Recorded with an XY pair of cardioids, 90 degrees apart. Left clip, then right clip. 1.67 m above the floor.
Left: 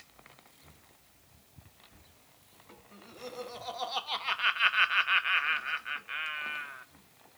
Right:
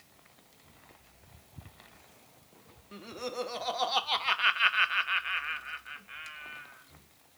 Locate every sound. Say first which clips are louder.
2.9 s laughter: right 6 dB; 65° right, 1.1 m; by 6.9 s 70° left, 1.2 m